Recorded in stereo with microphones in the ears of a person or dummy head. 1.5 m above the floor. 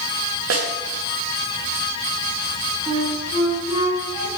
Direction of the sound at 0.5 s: 80° right.